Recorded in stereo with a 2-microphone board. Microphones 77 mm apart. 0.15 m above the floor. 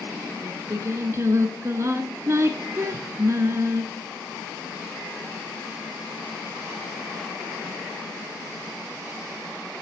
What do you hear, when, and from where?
0.4 s singing: 40° right (ahead or behind), 1.0 m